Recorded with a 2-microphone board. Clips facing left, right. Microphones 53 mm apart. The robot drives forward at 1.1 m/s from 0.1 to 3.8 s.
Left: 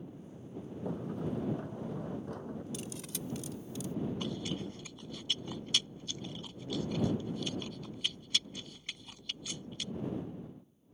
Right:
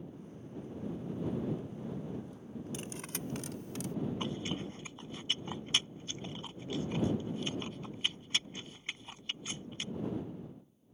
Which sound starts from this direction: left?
A sliding door, at 0.8 s.